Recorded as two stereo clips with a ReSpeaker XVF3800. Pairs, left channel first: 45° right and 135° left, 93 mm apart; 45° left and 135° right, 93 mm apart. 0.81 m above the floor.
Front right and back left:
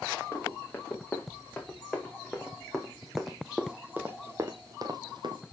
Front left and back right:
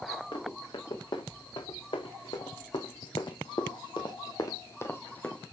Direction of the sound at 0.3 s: 20° left.